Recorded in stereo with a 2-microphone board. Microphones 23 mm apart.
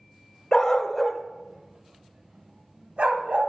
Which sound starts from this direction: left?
A dog barking, at 0.5 s.